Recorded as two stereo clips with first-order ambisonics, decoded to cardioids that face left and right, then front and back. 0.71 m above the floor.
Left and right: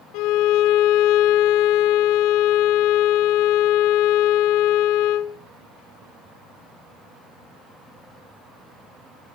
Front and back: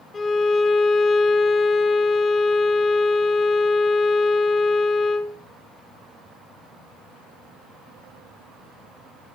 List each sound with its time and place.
0.1 s a violin: 75° left, 2 m